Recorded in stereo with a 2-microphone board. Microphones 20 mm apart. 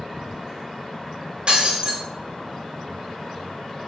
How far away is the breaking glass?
About 0.9 m.